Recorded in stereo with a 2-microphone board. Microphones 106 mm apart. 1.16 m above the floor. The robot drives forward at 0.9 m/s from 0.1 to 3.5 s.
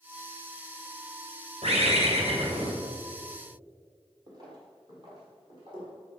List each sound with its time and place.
1.6 s a bird: 75° right (ahead or behind), 2 m; by 2.7 s 65° right (ahead or behind), 2.5 m
4.3 s footsteps: 40° right (ahead or behind), 2.5 m; by 6.1 s 45° right (ahead or behind), 5 m